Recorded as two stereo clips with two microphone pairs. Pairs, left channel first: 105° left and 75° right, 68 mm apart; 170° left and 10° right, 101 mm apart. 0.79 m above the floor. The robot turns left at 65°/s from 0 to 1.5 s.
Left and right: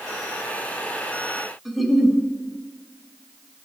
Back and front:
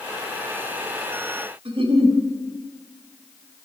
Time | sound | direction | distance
1.6 | a giggle | 10° left | 2.0 m